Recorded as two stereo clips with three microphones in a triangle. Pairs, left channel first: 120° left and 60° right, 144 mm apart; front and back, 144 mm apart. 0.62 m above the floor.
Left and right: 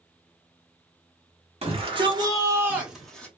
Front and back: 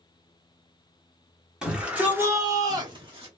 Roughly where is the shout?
Right.